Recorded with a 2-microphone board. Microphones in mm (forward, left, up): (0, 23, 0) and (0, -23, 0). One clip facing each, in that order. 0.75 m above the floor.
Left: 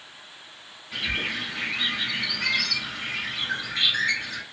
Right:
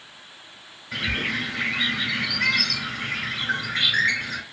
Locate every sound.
0.9 s a bird: 75° right (ahead or behind), 2.0 m